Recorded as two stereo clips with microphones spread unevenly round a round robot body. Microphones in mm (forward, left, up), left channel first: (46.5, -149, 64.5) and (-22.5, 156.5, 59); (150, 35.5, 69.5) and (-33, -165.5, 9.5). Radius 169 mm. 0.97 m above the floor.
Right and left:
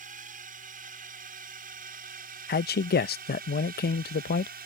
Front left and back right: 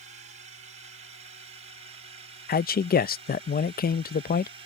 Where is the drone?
165° left.